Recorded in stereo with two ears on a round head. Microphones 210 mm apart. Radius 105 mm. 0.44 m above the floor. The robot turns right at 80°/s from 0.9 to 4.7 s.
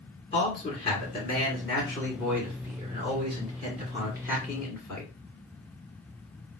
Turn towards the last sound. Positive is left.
turn(degrees=0)  # may be behind; listen again after turning